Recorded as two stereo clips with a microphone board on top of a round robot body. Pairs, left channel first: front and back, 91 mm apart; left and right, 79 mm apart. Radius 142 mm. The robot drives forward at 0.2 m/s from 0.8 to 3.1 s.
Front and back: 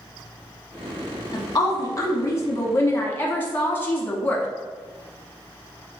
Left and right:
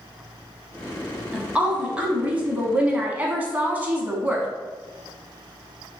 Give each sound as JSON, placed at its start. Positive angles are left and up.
{"t": 1.3, "sound": "a woman speaking", "azimuth_deg": -25, "distance_m": 1.1}